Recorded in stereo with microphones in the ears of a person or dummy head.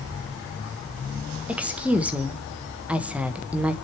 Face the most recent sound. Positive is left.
turn(degrees=-5)  # may be behind; listen again after turning